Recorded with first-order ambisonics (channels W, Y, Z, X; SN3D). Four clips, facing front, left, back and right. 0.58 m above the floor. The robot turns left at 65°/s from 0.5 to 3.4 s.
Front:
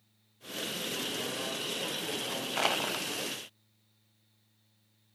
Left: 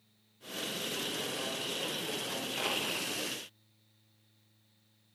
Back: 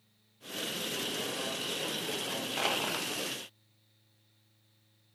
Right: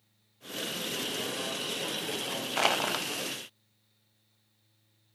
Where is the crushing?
65° right, 0.6 m; by 3.1 s 100° right, 0.6 m.